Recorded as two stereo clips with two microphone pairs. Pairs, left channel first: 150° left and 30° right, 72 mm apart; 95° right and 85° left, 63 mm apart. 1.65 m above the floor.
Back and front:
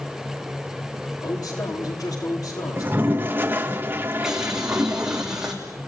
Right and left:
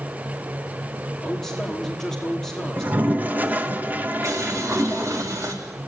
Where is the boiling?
55° left, 3.5 m.